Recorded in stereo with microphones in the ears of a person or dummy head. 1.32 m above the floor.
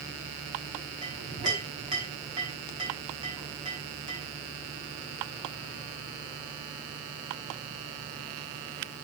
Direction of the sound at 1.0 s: 25° right (ahead or behind).